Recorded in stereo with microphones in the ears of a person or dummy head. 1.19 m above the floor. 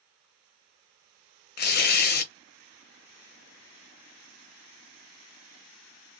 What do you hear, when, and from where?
1.6 s tearing paper: 45° left (ahead or behind), 0.6 m